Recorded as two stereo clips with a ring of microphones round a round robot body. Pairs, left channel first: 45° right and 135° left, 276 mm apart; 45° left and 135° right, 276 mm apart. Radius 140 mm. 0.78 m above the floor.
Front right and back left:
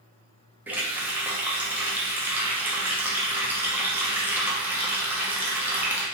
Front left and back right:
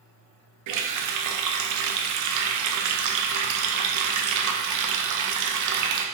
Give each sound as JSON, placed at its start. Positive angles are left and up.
{"t": 0.7, "sound": "a running tap", "azimuth_deg": -140, "distance_m": 0.5}